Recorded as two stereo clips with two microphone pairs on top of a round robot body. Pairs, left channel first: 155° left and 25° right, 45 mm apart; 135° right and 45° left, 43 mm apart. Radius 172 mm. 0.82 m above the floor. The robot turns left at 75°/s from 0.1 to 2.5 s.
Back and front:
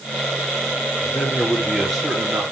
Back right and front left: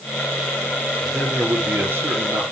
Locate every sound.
1.0 s a man speaking: 140° left, 3 m; by 2.4 s 30° left, 3 m